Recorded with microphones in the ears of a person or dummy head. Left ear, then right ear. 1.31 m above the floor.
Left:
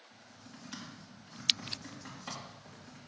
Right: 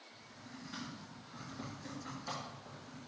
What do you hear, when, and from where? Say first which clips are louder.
0.1 s typing on a keyboard: right 1 dB; 85° left, 2.5 m